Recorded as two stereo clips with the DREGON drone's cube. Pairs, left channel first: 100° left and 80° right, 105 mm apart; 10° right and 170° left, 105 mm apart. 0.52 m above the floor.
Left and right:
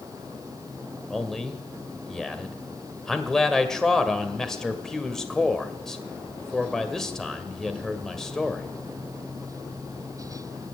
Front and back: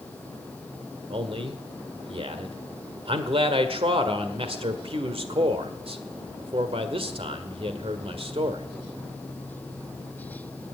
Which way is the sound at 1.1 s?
175° right.